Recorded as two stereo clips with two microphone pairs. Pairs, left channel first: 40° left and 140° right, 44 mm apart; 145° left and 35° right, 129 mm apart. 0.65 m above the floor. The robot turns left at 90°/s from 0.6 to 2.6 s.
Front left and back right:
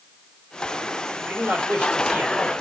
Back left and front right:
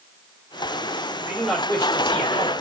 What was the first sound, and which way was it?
A man speaking, 105° right.